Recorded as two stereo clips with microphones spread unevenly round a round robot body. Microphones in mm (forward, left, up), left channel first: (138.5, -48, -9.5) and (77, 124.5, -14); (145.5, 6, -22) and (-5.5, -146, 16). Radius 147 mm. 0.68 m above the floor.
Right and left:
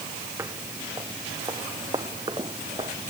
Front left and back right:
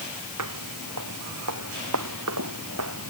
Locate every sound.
0.4 s footsteps: 170° right; by 3.1 s 175° right